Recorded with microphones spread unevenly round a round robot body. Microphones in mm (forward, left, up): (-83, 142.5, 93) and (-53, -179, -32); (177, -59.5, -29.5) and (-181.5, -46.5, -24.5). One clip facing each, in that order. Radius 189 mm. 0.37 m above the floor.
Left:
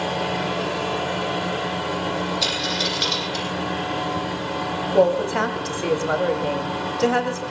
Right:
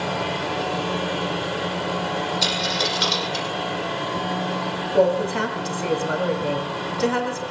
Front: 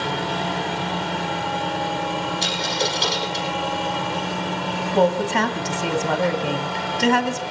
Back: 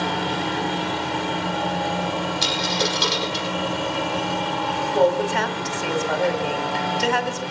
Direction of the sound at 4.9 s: 5° right.